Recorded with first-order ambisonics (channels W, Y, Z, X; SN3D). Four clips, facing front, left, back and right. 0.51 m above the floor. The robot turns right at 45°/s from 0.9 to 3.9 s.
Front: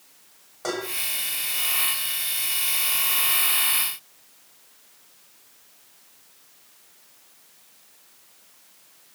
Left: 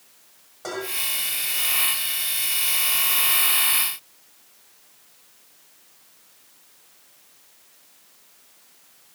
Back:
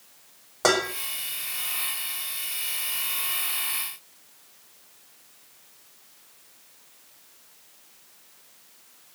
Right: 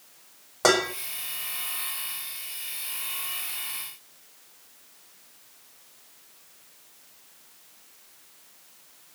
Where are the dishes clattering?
130° right, 1.6 m.